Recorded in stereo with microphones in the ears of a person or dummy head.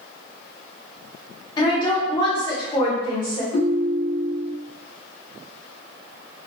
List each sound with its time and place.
1.6 s a woman speaking: 30° left (ahead or behind), 1.2 m
3.5 s a ringtone: 40° left (ahead or behind), 0.6 m